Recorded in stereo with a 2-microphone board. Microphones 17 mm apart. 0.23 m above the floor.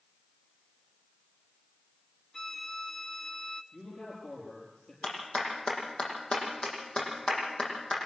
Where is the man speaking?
70° left (ahead or behind), 6.5 m.